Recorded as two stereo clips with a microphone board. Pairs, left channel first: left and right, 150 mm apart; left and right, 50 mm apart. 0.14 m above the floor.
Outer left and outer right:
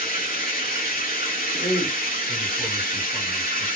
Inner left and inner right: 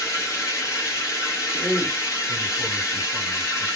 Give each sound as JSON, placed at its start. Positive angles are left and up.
{"t": 0.0, "sound": "running water", "side_deg": 75, "distance_m": 1.1}
{"t": 1.5, "sound": "a man speaking", "side_deg": 40, "distance_m": 2.0}